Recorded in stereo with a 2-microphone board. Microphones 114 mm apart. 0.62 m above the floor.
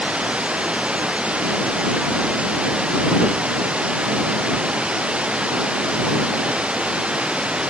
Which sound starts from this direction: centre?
Running water, at 0.0 s.